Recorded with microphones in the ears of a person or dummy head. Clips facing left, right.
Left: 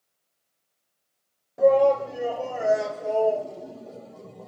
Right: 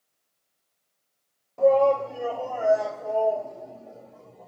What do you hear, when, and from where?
1.6 s a shout: 5° left (ahead or behind), 2.5 m; by 4.5 s 50° left (ahead or behind), 1.9 m